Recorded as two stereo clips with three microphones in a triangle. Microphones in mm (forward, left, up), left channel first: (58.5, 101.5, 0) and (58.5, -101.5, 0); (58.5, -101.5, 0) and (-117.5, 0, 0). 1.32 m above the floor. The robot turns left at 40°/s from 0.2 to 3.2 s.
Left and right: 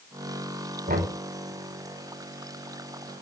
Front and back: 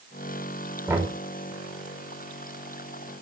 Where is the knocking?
130° right, 5 m; by 1.1 s 140° right, 5 m.